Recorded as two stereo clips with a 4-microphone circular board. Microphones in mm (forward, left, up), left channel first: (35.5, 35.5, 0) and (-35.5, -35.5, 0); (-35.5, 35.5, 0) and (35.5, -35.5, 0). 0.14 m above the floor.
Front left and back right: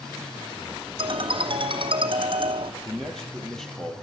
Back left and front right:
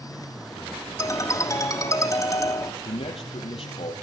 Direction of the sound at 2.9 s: 130° left.